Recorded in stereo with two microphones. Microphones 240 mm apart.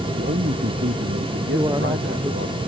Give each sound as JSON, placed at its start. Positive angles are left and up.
{"t": 0.1, "sound": "a man speaking", "side_deg": -45}
{"t": 1.5, "sound": "a man speaking", "side_deg": -20}